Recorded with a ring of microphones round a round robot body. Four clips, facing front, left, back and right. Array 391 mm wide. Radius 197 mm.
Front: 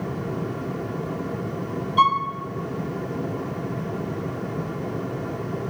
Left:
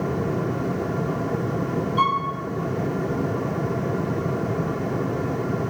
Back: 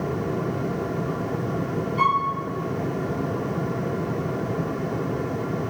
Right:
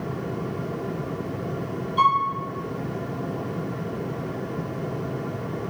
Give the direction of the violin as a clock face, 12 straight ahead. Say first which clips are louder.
Right 3 dB, front 3 dB; 12 o'clock.